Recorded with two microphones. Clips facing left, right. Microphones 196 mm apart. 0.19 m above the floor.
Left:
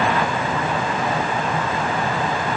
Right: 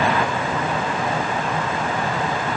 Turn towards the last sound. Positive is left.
No sound to turn to.